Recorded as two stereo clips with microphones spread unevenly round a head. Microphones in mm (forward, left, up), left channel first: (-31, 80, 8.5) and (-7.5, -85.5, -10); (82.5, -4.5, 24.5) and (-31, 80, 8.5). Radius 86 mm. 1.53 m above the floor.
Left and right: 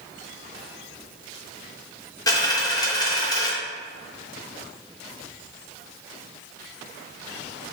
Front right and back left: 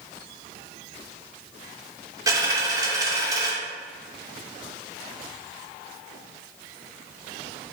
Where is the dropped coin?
90° left, 0.8 m.